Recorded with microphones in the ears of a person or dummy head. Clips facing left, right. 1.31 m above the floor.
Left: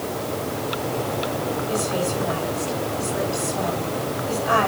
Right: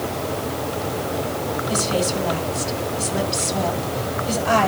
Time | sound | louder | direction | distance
1.7 | a woman speaking | right 3 dB | 80° right | 9 m